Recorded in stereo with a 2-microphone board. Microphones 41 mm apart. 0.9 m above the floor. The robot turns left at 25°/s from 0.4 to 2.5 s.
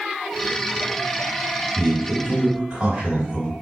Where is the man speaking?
5° right (ahead or behind), 1.8 m; by 3.5 s 20° right (ahead or behind), 1.8 m.